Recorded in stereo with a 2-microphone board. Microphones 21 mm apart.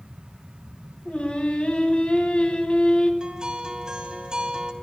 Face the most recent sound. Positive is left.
turn(degrees=-35)  # may be behind; listen again after turning